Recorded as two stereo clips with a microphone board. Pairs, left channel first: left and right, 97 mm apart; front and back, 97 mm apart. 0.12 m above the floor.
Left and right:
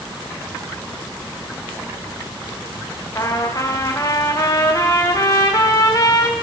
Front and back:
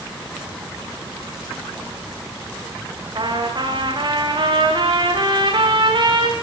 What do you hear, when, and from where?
3.1 s a trumpet: 145° left, 6 m